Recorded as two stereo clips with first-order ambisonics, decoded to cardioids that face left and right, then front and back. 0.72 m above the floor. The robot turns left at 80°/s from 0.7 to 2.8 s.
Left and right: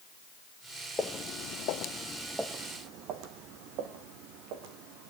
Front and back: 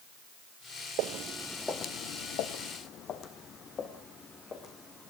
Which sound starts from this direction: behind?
Footsteps, at 1.0 s.